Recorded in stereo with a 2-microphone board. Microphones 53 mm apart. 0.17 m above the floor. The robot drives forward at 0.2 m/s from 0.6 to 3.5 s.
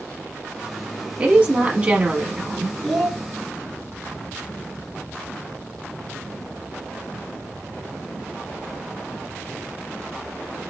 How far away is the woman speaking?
About 1.1 m.